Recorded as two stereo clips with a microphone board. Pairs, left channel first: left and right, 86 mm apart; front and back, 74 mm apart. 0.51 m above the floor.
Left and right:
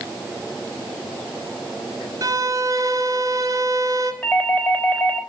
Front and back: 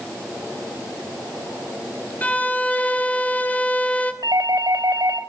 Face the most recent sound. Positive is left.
turn(degrees=160)